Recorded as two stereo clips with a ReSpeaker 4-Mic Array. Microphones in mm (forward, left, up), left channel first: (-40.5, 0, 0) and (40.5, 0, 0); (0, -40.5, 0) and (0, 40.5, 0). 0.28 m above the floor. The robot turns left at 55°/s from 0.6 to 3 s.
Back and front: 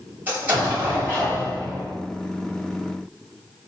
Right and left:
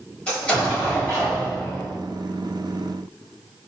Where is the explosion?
30° right, 1.5 m; by 1.9 s 105° right, 1.5 m.